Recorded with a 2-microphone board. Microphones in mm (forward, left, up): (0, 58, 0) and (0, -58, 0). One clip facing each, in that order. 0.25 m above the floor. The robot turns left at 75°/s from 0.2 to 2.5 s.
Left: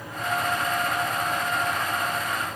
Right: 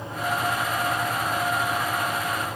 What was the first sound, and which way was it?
Only background noise.